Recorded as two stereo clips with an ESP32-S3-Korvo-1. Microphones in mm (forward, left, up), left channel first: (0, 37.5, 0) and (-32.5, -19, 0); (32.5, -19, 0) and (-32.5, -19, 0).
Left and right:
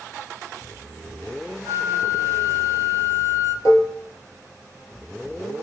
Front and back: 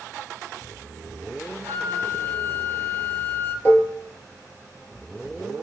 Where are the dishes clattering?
50° left, 1.7 m.